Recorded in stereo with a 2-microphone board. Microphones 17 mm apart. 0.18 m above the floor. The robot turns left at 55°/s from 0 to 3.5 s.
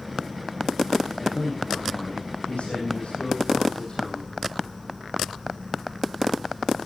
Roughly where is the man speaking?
Behind.